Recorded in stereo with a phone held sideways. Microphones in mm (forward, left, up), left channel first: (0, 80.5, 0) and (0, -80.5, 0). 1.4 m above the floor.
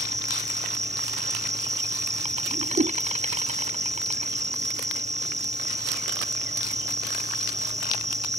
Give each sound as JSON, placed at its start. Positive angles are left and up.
{"t": 0.0, "sound": "an insect", "side_deg": -45}
{"t": 2.5, "sound": "a whoosh", "side_deg": -70}